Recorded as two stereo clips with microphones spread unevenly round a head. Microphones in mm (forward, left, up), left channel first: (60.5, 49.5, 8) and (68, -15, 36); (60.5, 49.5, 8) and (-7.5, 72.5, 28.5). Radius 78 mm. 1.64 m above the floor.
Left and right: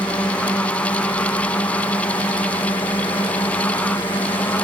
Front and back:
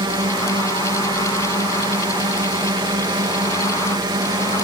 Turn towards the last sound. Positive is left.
turn(degrees=145)